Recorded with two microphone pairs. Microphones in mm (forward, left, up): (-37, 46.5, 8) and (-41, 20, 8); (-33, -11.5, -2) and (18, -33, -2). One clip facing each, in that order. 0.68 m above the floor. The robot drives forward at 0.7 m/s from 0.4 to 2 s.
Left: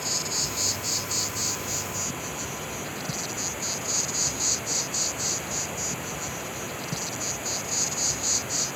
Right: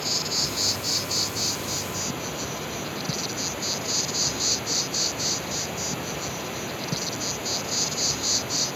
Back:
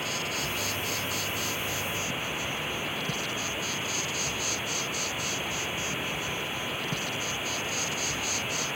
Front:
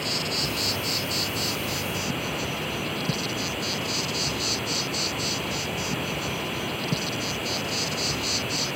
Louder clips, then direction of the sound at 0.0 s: Right 3 dB, front 3 dB; 40° right.